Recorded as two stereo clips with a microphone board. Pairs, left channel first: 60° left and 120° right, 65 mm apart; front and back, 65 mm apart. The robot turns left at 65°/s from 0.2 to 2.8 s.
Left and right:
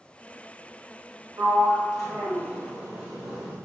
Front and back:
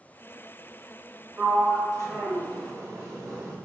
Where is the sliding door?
105° right, 1.5 m; by 3.5 s 165° left, 1.5 m.